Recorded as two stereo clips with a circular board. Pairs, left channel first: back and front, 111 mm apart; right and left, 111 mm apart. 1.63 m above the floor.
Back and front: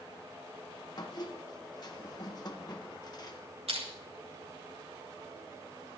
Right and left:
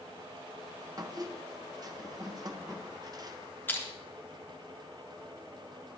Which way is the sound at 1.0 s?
135° left.